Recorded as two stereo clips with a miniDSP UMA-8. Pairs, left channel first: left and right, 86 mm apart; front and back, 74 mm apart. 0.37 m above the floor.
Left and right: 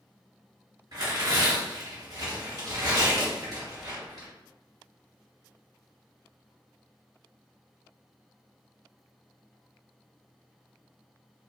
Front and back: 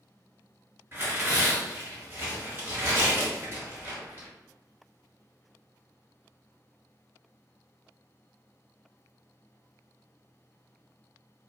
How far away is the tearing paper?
About 2.0 m.